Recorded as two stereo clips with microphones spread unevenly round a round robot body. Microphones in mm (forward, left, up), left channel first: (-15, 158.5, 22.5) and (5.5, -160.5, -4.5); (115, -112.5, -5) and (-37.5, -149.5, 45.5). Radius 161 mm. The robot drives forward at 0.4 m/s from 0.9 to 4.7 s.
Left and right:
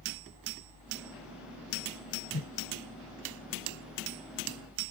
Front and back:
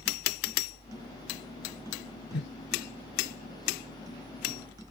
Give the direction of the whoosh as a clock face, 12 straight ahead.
11 o'clock.